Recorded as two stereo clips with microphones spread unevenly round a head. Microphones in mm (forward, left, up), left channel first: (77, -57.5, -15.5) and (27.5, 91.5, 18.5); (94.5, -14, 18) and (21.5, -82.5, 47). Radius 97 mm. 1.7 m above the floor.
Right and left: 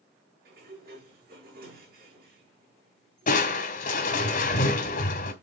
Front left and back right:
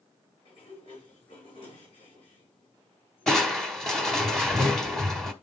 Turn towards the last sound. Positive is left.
turn(degrees=-65)